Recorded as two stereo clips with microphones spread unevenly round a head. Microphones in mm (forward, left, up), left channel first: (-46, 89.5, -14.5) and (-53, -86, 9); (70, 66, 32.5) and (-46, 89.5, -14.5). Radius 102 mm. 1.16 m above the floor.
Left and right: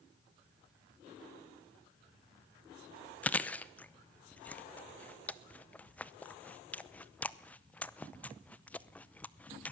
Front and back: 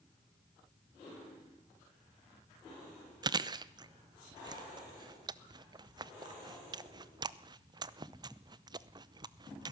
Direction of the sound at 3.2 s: 160° left.